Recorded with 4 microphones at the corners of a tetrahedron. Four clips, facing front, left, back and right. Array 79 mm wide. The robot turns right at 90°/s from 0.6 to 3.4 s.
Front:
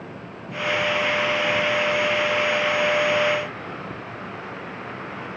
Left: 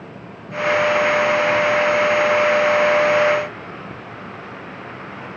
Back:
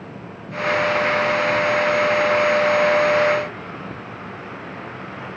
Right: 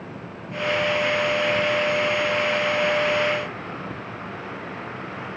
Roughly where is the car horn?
I don't hear a car horn.